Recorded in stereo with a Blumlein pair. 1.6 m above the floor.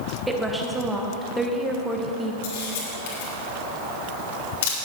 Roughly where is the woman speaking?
Ahead.